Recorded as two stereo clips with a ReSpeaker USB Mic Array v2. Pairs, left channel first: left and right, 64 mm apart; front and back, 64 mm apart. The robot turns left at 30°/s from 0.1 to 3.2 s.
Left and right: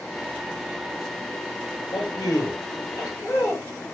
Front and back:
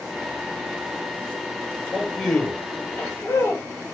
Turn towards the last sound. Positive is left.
turn(degrees=50)